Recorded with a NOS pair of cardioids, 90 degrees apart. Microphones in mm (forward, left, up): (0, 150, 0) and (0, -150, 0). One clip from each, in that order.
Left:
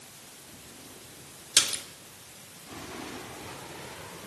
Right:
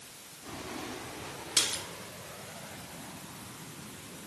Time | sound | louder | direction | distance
1.6 | a splash | left 4 dB | 35° left | 1.1 m